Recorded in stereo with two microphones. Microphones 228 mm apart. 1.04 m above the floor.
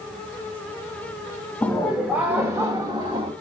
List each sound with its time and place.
1.6 s laughter: centre (ahead or behind), 1.8 m; by 3.3 s 25° right (ahead or behind), 1.9 m